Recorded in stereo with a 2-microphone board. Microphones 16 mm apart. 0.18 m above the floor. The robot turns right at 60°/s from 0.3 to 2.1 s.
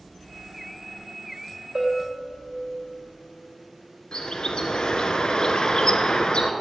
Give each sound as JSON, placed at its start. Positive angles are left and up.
{"t": 1.8, "sound": "a bell", "side_deg": -55, "distance_m": 4.5}
{"t": 4.1, "sound": "a bird", "side_deg": 55, "distance_m": 1.1}